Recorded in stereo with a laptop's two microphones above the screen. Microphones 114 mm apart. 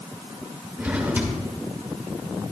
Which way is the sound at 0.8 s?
15° right (ahead or behind).